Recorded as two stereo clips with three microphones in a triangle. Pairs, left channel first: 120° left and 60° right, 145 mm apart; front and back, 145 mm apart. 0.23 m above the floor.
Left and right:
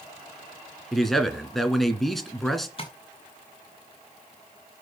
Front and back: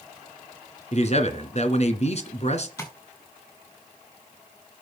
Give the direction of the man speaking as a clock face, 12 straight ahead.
11 o'clock.